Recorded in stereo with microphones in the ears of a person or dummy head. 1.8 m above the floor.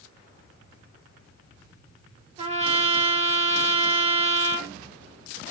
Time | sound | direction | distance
2.4 | a trumpet | 40° right (ahead or behind) | 1.7 m